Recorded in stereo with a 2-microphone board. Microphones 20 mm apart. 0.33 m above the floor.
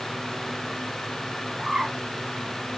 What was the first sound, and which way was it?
A bird, 70° right (ahead or behind).